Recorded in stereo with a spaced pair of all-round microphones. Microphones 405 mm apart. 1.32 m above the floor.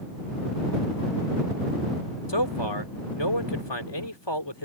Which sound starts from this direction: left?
A man speaking, at 2.3 s.